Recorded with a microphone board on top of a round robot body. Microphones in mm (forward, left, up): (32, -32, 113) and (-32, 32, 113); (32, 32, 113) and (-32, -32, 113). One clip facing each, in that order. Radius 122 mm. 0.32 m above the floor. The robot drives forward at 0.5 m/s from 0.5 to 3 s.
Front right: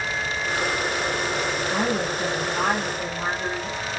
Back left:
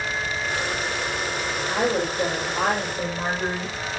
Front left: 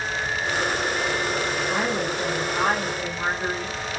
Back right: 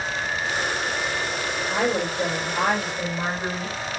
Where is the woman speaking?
175° right, 6.5 m.